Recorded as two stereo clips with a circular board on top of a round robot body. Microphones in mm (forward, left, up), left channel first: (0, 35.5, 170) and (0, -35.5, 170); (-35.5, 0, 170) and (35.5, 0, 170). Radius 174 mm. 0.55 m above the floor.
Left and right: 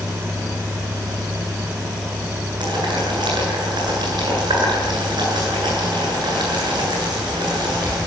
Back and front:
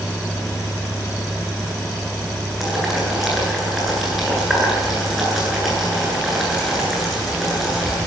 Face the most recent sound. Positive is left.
turn(degrees=-85)